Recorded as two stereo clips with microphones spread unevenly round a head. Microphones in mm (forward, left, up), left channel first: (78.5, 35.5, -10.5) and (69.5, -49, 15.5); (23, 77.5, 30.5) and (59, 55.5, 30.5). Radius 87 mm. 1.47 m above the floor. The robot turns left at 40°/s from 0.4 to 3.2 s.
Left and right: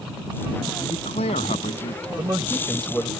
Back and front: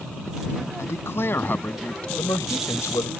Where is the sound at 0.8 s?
135° left; by 2.1 s 85° left.